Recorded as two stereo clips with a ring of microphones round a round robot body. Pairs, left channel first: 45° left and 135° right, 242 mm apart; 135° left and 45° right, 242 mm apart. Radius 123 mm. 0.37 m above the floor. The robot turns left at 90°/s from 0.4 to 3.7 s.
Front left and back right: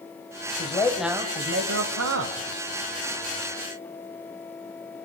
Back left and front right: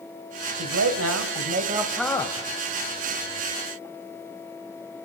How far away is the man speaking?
About 2 m.